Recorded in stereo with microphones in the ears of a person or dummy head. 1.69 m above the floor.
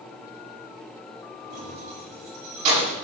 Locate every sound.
1.5 s keys jangling: 40° right (ahead or behind), 6.5 m